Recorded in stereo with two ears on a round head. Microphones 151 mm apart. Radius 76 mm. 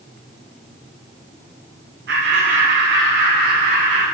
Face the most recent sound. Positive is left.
turn(degrees=-75)  # may be behind; listen again after turning